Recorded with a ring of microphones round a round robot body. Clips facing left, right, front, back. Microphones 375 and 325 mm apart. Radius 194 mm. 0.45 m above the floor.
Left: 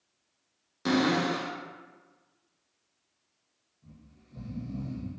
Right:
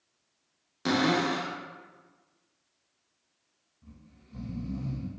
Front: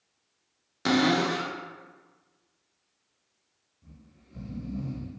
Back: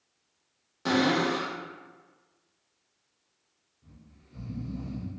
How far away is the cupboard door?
About 0.5 m.